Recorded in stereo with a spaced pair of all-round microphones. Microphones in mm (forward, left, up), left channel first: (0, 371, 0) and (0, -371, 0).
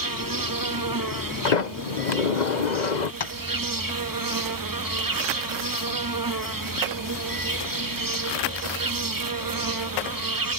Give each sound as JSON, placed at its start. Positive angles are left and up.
{"t": 0.0, "sound": "an insect", "side_deg": -30}
{"t": 1.4, "sound": "a sliding door", "side_deg": 70}
{"t": 3.2, "sound": "tapping", "side_deg": 45}